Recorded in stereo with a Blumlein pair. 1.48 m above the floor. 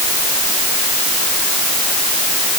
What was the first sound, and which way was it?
Only background noise.